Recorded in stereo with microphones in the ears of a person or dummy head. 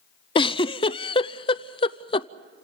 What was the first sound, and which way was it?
A giggle, 30° left (ahead or behind).